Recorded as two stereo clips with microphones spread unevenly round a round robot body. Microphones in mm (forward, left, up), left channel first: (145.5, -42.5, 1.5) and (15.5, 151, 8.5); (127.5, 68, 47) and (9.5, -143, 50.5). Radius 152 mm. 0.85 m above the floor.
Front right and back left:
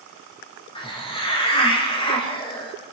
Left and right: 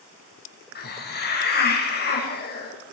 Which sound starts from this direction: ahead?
A hiss, at 0.8 s.